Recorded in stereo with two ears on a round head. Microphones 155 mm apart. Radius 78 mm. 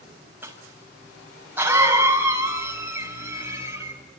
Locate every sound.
0.4 s a cough: 10° right (ahead or behind), 6 m